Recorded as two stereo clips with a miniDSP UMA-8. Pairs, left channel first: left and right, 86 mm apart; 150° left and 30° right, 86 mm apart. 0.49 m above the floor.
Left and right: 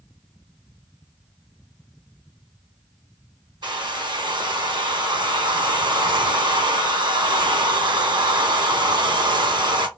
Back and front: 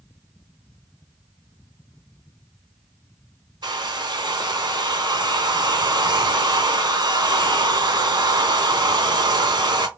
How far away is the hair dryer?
About 0.7 m.